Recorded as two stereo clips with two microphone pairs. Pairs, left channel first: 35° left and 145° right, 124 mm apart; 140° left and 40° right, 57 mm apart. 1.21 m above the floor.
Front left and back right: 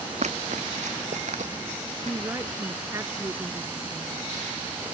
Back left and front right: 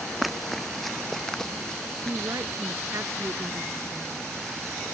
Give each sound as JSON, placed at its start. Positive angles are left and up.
{"t": 0.2, "sound": "running footsteps", "azimuth_deg": -125}
{"t": 2.0, "sound": "a woman speaking", "azimuth_deg": -75}